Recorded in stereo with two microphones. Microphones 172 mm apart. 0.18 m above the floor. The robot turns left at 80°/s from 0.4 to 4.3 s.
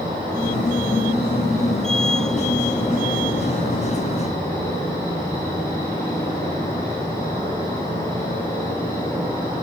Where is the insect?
25° right, 5.5 m; by 9.6 s 20° left, 5.5 m.